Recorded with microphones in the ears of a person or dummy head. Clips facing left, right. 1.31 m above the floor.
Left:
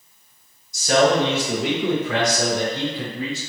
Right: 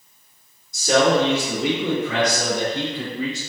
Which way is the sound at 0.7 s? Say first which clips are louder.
Even; 50° right (ahead or behind).